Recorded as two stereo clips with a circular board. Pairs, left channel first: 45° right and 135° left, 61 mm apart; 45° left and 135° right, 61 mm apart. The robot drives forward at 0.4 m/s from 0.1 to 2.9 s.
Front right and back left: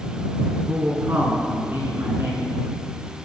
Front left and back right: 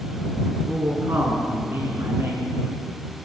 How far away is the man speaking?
About 3 m.